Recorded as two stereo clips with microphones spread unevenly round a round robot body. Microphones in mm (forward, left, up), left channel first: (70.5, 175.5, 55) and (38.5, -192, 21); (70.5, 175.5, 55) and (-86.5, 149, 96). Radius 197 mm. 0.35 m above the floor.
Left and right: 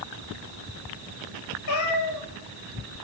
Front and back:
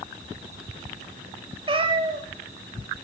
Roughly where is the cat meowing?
Behind left.